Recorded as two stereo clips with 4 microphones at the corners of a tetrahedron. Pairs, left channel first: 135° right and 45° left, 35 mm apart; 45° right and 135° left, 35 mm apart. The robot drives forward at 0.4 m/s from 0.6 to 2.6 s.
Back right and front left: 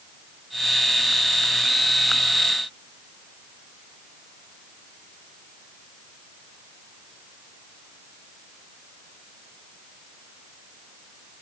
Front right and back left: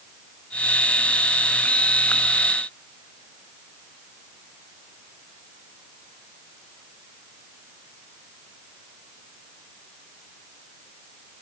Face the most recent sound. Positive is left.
No sound to turn to.